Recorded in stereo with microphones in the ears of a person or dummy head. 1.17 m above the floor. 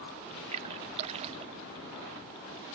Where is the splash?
35° right (ahead or behind), 0.5 m.